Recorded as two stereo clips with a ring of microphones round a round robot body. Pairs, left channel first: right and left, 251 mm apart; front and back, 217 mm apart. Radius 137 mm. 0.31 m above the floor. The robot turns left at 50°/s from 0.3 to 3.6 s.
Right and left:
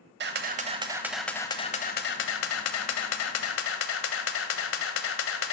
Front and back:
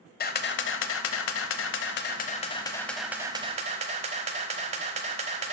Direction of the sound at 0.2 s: 45° left.